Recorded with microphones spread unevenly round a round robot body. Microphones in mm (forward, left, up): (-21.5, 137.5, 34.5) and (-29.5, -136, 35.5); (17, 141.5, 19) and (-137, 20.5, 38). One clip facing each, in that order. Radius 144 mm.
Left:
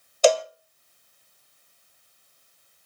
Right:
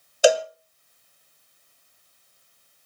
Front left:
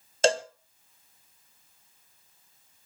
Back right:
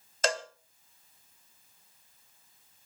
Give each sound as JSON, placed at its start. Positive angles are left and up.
{"t": 0.2, "sound": "a cowbell", "azimuth_deg": -15, "distance_m": 0.8}